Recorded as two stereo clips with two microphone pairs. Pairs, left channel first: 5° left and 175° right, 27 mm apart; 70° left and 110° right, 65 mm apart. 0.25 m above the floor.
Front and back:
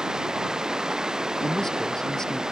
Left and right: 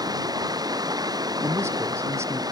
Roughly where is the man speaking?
Ahead right.